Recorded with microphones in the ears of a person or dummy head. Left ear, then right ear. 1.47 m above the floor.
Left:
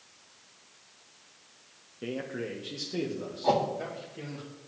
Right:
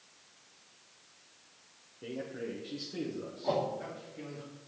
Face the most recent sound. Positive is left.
turn(degrees=70)  # may be behind; listen again after turning